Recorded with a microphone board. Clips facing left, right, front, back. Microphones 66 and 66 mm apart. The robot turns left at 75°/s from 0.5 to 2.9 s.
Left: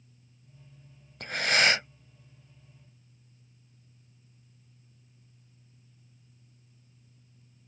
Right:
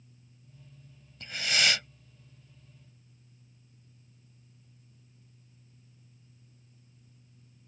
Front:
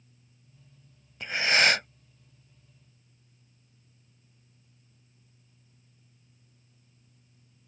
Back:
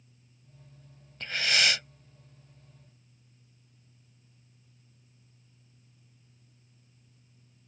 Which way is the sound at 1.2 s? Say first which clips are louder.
Left 4 dB, front 4 dB; 75° left.